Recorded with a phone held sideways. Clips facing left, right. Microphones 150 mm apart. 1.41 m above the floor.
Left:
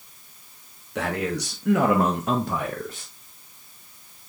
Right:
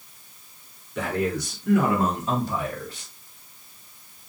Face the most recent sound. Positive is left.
turn(degrees=40)  # may be behind; listen again after turning